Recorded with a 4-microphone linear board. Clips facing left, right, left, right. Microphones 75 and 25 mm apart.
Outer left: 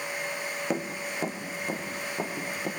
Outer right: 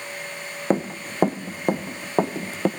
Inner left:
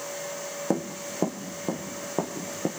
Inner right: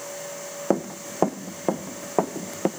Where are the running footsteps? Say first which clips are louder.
Outer right 10 dB, inner right 5 dB; 35° right (ahead or behind), 1.5 m; by 2.7 s 75° right (ahead or behind), 2.5 m.